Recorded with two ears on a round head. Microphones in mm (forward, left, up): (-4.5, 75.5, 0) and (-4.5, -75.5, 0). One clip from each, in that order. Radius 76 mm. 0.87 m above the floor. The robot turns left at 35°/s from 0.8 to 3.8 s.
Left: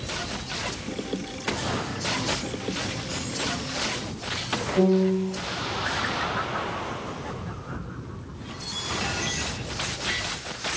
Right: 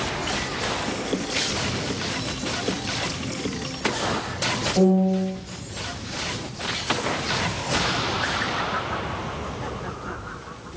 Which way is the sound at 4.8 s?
60° right (ahead or behind).